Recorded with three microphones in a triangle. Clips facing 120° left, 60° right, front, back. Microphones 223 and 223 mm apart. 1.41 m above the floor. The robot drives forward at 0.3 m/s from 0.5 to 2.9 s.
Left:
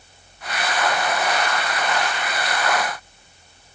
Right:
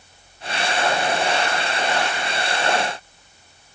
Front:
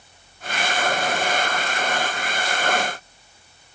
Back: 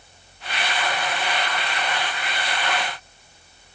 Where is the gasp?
I don't hear a gasp.